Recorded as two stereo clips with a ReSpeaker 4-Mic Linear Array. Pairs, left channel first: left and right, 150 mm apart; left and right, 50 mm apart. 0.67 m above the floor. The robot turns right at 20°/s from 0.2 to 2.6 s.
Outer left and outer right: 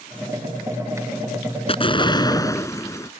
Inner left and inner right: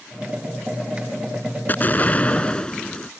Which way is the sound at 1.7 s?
35° left (ahead or behind).